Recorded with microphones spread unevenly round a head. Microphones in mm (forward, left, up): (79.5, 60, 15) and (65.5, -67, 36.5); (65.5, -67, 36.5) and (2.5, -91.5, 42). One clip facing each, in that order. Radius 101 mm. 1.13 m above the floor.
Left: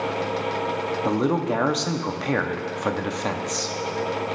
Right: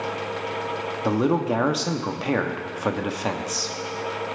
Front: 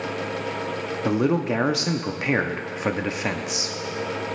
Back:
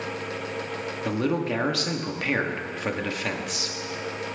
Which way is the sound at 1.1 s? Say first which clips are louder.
Right 2 dB, front 4 dB; 5° left.